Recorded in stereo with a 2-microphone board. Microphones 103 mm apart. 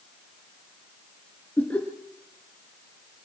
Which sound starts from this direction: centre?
Laughter, at 1.6 s.